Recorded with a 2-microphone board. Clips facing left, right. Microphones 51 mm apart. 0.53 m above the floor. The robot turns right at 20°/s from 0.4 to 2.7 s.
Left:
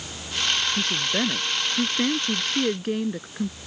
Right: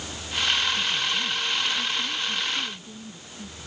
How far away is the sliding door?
No sliding door in this recording.